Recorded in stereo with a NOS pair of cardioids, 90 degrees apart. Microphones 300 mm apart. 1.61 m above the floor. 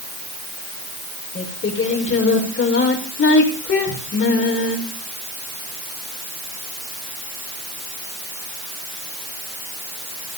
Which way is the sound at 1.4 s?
40° left.